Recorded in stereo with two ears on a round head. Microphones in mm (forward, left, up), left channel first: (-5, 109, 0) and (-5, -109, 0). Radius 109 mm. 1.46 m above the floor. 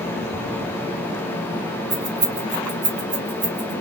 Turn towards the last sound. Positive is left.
turn(degrees=-35)  # may be behind; listen again after turning